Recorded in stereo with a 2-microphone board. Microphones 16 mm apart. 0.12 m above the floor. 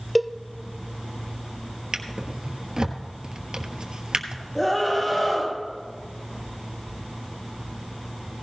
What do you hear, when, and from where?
0.1 s a cowbell: centre (ahead or behind), 0.6 m
1.9 s a drawer: 60° right (ahead or behind), 1.3 m
4.5 s a scream: 15° left (ahead or behind), 5.5 m